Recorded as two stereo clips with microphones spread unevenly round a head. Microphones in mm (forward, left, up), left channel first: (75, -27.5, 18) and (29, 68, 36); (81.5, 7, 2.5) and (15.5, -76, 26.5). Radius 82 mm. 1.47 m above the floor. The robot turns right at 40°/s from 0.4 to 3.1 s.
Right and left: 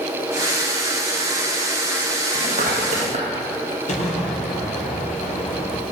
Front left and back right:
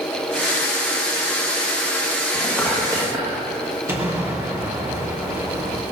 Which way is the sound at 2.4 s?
130° left.